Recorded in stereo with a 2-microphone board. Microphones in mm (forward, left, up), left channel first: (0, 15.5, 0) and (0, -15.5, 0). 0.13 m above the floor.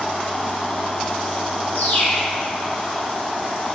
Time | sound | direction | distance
1.7 | a bird | 60° left (ahead or behind) | 1.1 m